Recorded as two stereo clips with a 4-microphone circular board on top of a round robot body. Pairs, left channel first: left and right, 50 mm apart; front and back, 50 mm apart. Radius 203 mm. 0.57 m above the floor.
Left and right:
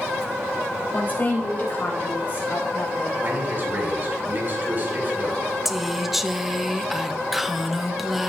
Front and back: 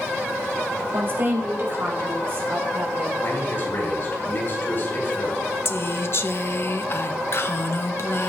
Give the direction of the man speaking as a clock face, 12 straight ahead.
1 o'clock.